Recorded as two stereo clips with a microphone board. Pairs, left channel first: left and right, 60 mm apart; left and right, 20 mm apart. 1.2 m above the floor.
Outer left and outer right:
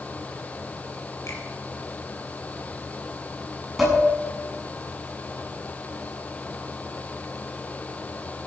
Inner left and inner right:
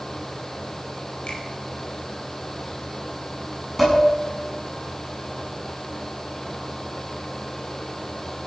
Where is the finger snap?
55° left (ahead or behind), 4 m.